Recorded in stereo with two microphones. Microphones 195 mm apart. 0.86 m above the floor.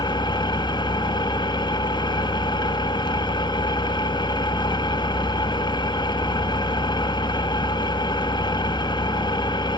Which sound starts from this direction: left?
An engine running, at 0.0 s.